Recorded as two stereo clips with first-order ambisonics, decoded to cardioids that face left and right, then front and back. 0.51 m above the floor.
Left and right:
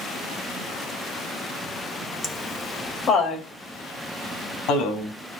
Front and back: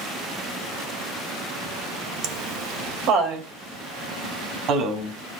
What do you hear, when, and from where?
2.2 s laughter: 170° left, 2.0 m; by 5.1 s 130° left, 3.5 m